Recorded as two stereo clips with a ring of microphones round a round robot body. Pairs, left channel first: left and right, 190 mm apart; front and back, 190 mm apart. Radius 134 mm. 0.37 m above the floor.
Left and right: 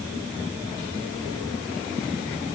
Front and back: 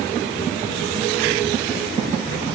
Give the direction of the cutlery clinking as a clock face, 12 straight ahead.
No cutlery clinking in this recording.